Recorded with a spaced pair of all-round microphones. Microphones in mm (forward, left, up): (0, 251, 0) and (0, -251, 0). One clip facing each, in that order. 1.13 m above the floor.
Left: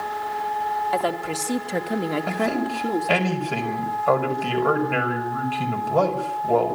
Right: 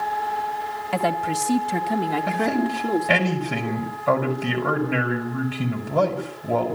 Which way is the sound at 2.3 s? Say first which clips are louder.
Right 2 dB; 40° right (ahead or behind).